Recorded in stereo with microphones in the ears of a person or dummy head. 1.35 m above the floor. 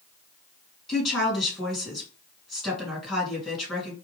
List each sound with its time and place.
0.9 s a woman speaking: centre (ahead or behind), 3 m